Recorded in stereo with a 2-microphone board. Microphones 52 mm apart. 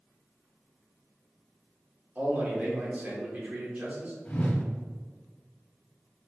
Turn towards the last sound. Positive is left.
turn(degrees=35)  # may be behind; listen again after turning